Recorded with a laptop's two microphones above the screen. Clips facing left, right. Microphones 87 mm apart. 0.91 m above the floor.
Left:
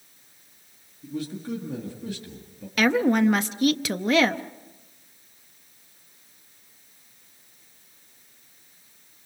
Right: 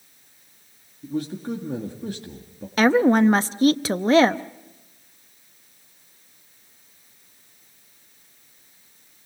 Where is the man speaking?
45° right (ahead or behind), 1.8 m.